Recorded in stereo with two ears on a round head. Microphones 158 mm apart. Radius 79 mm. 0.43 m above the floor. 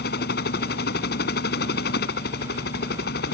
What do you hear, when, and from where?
0.0 s a helicopter: 60° left (ahead or behind)